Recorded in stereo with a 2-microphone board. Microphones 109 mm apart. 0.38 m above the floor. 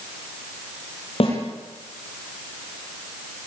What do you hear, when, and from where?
1.2 s a snare drum: 60° left (ahead or behind), 7.5 m